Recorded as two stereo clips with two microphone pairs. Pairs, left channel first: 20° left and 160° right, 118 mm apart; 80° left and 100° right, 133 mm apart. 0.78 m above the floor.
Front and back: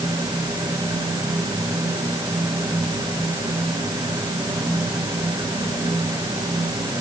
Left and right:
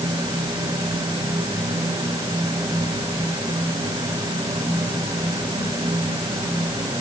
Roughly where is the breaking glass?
I don't hear breaking glass.